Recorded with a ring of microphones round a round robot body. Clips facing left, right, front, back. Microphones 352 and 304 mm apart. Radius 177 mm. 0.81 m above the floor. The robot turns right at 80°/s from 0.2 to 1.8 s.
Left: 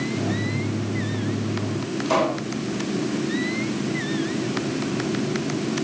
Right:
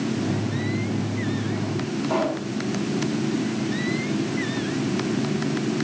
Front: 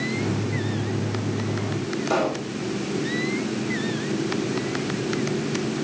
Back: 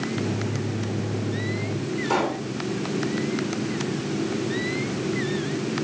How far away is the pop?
About 8.5 m.